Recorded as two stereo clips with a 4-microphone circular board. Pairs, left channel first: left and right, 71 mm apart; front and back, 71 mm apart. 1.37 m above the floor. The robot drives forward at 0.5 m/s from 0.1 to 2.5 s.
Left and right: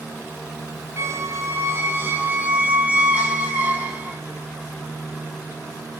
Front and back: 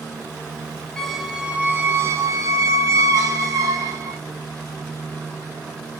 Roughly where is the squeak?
Right.